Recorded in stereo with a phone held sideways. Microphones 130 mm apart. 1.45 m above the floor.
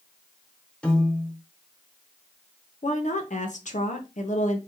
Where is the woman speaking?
70° left (ahead or behind), 1.0 m.